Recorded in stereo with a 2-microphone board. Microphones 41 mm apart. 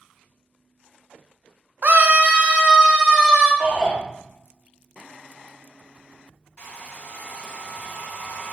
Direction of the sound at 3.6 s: 20° right (ahead or behind).